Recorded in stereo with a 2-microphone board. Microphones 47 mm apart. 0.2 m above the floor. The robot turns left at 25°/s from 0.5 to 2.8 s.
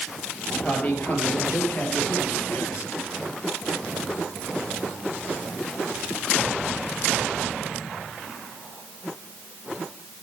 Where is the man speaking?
150° left, 4.5 m; by 2.9 s 95° left, 4.5 m.